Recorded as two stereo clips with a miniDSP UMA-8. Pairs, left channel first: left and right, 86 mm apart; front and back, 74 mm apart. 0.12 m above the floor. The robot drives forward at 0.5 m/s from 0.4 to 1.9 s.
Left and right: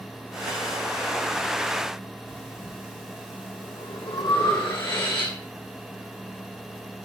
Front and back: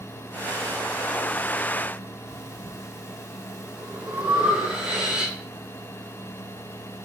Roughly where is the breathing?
Left.